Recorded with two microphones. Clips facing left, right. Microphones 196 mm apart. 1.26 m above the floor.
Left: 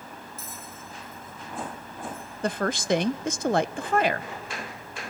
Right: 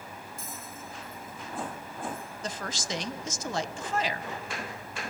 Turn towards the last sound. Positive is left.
turn(degrees=60)  # may be behind; listen again after turning